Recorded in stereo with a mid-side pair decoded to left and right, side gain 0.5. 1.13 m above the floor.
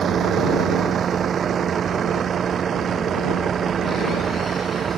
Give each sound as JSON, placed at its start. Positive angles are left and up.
{"t": 0.0, "sound": "a vehicle", "azimuth_deg": -45}